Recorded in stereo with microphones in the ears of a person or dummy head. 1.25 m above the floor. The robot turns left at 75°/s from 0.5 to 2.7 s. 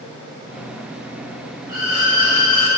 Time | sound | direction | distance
1.7 | a violin | 165° right | 1.6 m